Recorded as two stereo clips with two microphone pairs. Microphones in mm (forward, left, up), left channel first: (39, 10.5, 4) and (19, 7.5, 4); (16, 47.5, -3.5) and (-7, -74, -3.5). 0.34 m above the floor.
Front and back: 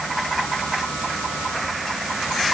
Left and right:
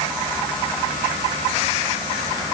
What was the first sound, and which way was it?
Only background noise.